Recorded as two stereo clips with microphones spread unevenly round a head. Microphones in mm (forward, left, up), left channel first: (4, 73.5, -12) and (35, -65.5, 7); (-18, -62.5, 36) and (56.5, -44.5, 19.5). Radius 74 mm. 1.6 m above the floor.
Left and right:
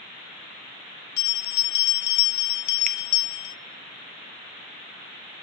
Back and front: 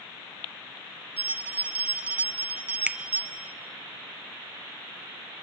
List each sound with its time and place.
1.2 s a bell: 95° left, 0.6 m
2.9 s a finger snap: 65° right, 0.7 m